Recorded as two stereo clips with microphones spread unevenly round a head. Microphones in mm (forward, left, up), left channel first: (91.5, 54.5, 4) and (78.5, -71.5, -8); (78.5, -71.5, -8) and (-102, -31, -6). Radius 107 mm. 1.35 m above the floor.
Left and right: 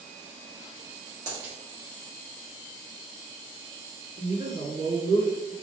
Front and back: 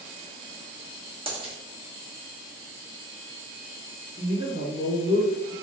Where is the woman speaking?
130° right, 1.9 m.